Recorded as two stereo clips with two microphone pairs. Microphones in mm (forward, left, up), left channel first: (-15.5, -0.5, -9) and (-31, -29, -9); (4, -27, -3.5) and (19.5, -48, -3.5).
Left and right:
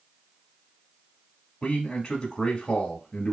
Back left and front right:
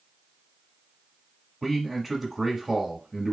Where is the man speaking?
15° left, 1.2 m.